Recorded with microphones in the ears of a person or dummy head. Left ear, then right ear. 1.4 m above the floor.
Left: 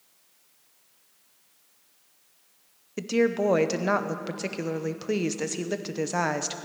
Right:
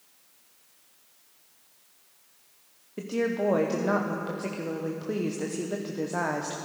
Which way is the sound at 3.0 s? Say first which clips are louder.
Left 4 dB; 75° left (ahead or behind).